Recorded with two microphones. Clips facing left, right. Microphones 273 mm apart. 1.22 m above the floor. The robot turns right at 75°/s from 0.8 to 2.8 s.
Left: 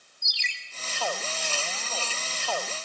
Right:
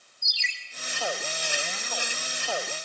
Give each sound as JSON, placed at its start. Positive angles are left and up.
{"t": 0.2, "sound": "a ringtone", "side_deg": 70, "distance_m": 6.5}